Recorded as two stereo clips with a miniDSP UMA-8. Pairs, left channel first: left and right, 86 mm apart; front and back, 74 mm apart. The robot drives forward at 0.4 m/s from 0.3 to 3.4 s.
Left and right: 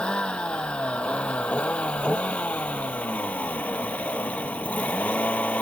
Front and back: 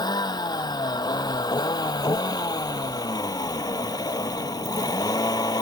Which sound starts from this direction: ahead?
A vehicle, at 0.0 s.